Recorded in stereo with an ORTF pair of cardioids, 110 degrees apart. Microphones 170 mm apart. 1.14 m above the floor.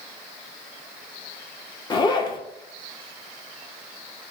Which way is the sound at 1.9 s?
25° left.